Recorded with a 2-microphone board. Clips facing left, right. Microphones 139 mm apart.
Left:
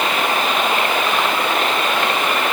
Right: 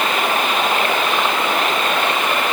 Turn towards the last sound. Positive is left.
No sound to turn to.